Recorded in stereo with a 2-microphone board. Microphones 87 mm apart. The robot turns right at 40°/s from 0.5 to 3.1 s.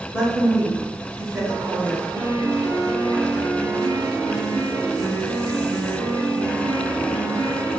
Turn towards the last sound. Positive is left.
turn(degrees=-95)